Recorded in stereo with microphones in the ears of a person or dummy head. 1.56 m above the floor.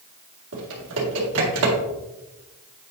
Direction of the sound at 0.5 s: 70° right (ahead or behind).